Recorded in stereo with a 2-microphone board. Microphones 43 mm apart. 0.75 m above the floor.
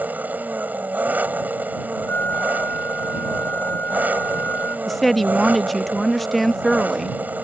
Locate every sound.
0.0 s an engine running: 45° right (ahead or behind)
2.1 s a flute: 60° left (ahead or behind)
4.9 s a woman speaking: 5° left (ahead or behind)